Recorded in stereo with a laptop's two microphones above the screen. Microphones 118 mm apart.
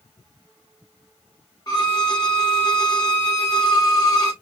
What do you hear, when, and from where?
1.7 s a violin: 35° left (ahead or behind), 1.3 m